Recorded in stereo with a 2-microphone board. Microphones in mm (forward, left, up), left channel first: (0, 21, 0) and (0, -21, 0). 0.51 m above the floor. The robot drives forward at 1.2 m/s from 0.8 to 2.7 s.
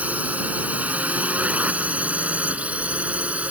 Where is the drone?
40° right (ahead or behind); by 3.5 s 35° right (ahead or behind).